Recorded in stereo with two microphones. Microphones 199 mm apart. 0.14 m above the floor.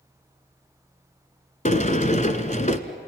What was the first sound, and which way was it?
A sliding door, 40° left (ahead or behind).